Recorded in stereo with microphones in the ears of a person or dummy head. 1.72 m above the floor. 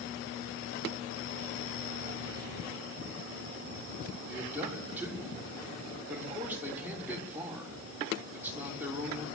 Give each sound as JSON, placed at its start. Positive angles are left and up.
{"t": 4.3, "sound": "a man speaking", "side_deg": -10, "distance_m": 5.5}